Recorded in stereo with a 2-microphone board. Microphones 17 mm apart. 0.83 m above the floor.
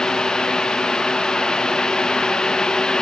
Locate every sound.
Only background noise.